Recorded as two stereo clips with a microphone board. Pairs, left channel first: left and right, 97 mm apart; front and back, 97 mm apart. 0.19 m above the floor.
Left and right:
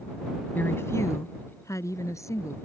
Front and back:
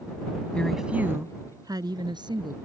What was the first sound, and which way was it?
A woman speaking, 55° left.